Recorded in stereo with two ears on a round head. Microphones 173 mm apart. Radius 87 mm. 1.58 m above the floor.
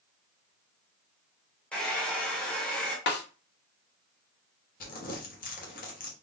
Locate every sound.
1.7 s a hair dryer: 5° left (ahead or behind), 1.0 m
3.1 s a snare drum: 55° left (ahead or behind), 0.7 m
4.8 s crumpling: 50° left (ahead or behind), 0.9 m